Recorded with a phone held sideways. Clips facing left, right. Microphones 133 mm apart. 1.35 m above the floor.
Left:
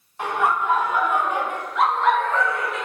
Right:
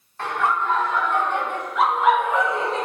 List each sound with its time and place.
0.2 s laughter: 15° left (ahead or behind), 3 m; by 2.9 s 35° right (ahead or behind), 1.0 m